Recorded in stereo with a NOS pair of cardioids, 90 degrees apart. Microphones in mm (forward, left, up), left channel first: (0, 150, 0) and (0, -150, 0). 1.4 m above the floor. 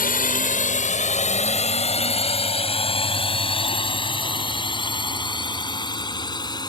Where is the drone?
30° left; by 6.7 s 15° left.